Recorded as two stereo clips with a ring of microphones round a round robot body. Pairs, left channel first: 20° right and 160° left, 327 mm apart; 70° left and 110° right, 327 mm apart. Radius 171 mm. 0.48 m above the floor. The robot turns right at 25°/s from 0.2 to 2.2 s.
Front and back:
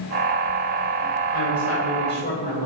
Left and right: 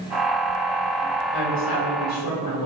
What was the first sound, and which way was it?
A woman speaking, 15° left.